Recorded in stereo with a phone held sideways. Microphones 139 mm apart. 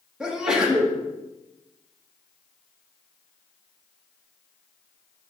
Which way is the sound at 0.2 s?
5° right (ahead or behind).